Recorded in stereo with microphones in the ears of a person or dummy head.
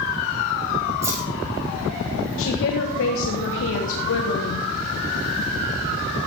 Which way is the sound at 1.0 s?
15° right (ahead or behind).